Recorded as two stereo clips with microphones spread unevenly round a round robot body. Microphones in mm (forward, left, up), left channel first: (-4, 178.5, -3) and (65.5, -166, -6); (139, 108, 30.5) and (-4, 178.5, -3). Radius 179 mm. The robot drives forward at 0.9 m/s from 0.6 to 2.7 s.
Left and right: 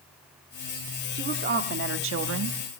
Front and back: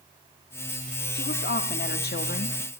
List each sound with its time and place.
1.1 s a woman speaking: 15° right, 1.8 m; by 2.6 s 55° right, 0.9 m